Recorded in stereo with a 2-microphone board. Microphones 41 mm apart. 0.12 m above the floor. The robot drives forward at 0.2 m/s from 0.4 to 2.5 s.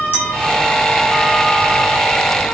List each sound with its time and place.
0.1 s a clink: 60° left (ahead or behind), 1.1 m